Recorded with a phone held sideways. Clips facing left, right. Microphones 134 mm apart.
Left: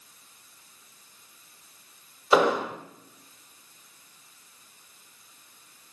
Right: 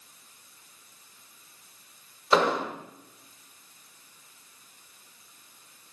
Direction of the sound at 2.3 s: 10° left (ahead or behind).